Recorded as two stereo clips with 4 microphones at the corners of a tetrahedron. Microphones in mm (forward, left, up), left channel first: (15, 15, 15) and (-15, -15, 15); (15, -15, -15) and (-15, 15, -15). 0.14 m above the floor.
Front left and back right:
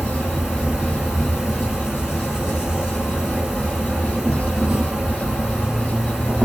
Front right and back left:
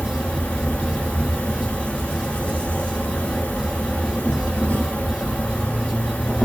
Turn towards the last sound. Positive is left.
turn(degrees=-75)